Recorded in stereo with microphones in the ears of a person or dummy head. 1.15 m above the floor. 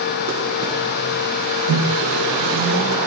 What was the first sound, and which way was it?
A microwave, 80° right.